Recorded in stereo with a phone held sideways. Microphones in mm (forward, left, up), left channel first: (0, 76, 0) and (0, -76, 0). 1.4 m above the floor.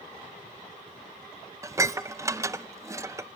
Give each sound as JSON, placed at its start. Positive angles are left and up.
{"t": 1.6, "sound": "dishes clattering", "side_deg": -20, "distance_m": 0.5}